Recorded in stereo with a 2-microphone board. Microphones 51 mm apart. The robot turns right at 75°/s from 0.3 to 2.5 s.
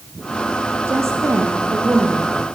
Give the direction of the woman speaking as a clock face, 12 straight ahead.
4 o'clock.